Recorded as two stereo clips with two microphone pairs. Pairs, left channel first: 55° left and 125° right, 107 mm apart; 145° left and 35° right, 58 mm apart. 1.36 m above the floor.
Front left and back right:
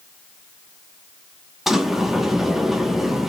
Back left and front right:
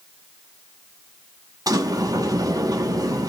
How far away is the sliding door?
About 1.1 m.